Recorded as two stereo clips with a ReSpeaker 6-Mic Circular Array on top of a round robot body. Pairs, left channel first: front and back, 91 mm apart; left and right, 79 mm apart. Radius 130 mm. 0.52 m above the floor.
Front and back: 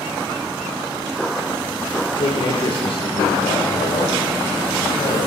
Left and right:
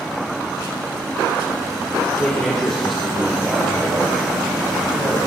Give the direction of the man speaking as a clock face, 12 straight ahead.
11 o'clock.